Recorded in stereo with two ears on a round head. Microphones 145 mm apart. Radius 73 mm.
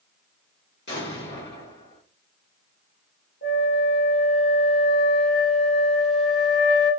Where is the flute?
60° left (ahead or behind), 2.5 m.